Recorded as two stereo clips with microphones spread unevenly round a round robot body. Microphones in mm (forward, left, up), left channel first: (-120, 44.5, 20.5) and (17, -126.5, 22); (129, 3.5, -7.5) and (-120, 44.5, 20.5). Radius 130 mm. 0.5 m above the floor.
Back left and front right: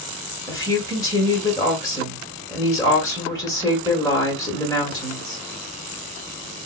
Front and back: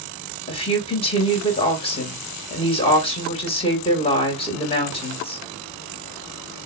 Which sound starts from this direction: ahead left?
A woman speaking, at 0.5 s.